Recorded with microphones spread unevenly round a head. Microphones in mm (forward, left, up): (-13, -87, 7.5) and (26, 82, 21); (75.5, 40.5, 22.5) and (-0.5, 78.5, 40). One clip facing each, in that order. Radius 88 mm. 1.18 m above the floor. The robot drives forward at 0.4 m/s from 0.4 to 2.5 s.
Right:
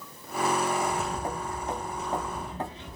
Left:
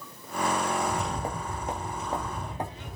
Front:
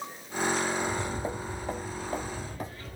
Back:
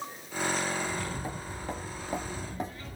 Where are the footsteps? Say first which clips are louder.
Even, front 3 dB; 20° left, 1.5 m; by 3.0 s 145° left, 1.5 m.